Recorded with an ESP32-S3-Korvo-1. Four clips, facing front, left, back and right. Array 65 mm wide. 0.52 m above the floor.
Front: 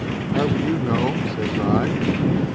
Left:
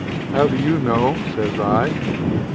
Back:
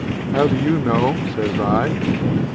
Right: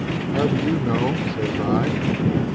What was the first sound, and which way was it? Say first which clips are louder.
A man speaking: left 5 dB, back 4 dB; 120° left.